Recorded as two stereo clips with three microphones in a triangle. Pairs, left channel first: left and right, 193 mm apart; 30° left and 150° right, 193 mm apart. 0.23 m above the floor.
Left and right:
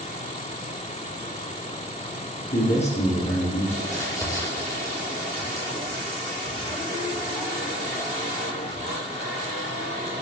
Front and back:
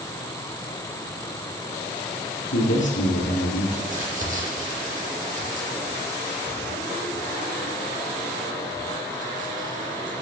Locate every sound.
2.5 s a man speaking: 35° left, 7.5 m
3.8 s crumpling: 165° left, 9 m